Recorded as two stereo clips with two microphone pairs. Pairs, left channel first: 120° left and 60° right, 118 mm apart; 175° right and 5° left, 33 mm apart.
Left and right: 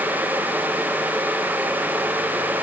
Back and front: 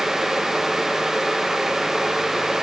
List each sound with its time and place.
Only background noise.